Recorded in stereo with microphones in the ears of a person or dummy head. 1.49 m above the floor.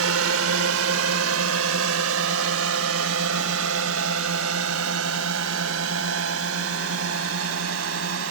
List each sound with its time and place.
0.0 s a drone: 65° right (ahead or behind)